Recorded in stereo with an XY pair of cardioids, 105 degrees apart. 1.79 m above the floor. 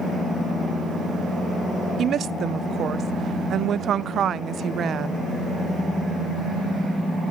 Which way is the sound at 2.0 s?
60° right.